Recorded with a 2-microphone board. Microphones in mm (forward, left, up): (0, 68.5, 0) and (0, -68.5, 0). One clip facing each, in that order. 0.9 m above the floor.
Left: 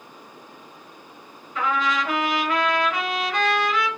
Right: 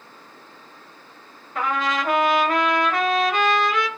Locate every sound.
1.6 s a trumpet: 50° right (ahead or behind), 0.9 m